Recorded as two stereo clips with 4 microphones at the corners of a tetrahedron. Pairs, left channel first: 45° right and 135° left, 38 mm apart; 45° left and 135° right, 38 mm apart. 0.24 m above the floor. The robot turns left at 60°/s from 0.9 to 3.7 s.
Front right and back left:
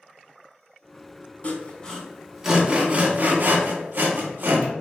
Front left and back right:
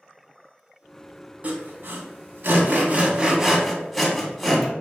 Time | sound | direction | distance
1.4 | sawing | 85° right | 0.5 m